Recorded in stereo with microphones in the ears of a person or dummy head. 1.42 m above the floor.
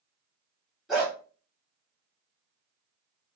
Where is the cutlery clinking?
I don't hear cutlery clinking.